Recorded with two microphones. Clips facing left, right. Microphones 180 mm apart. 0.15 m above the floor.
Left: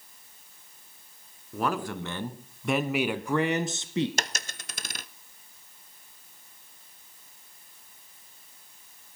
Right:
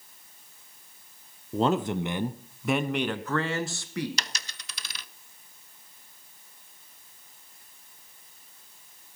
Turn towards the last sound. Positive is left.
turn(degrees=45)  # may be behind; listen again after turning